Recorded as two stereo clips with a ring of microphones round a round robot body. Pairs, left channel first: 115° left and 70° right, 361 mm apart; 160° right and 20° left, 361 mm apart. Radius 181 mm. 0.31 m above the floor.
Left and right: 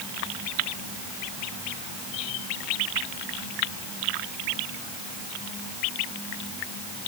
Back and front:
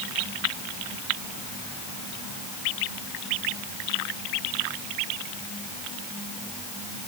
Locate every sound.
Only background noise.